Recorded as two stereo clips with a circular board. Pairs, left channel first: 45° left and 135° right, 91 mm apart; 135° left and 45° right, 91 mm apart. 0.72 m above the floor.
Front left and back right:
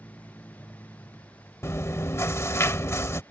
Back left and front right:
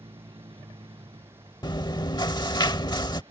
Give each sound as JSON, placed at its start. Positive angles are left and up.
{"t": 0.0, "sound": "a vehicle", "azimuth_deg": -25}
{"t": 1.6, "sound": "chewing", "azimuth_deg": 100}